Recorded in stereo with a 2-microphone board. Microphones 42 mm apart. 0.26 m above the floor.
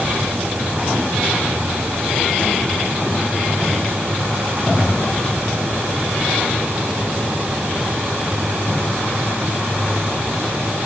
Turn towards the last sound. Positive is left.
No sound to turn to.